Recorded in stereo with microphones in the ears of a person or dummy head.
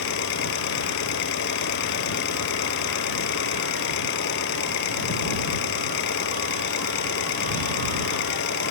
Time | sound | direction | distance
0.0 | an engine running | 70° left (ahead or behind) | ?